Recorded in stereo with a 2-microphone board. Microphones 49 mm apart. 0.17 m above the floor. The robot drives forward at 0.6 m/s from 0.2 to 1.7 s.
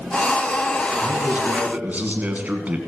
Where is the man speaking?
30° right (ahead or behind), 1.9 m; by 2.8 s 35° right (ahead or behind), 1.8 m.